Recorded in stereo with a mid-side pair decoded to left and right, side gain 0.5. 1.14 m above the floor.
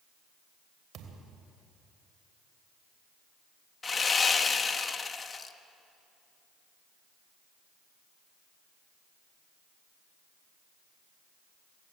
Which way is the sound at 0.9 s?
65° right.